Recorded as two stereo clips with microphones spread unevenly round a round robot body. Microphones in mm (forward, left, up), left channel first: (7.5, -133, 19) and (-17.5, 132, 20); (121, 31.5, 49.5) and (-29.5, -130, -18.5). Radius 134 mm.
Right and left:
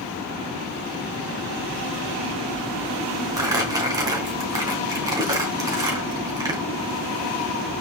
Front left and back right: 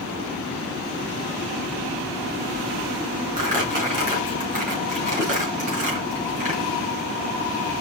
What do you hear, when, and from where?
3.4 s crumpling: 170° left, 3 m